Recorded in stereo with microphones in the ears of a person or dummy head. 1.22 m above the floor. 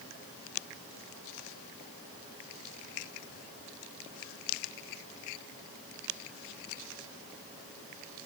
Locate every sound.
Only background noise.